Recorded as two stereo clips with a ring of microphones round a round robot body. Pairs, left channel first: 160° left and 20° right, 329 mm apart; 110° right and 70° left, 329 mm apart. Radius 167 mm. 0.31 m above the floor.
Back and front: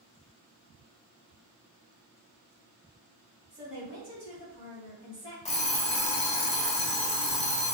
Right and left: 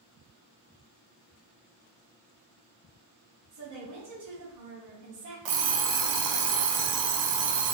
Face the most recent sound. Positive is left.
turn(degrees=85)